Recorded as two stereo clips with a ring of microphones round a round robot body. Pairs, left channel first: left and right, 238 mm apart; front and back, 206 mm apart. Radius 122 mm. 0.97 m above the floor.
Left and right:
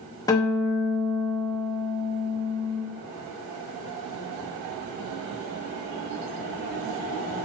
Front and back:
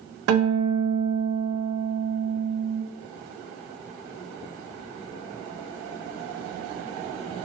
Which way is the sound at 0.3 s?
165° left.